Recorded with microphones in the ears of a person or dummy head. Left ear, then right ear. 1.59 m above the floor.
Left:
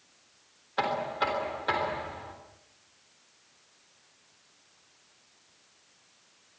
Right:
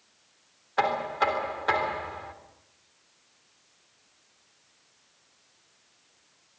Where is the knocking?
15° right (ahead or behind), 3.5 m.